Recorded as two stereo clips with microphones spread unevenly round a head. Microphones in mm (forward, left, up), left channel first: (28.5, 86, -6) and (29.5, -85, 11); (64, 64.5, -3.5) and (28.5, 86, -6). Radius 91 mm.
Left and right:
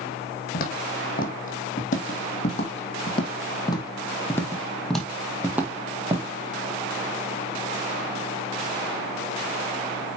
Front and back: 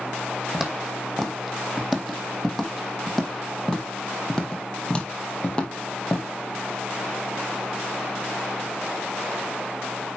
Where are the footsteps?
60° left, 3 m; by 6.3 s 50° right, 1.9 m.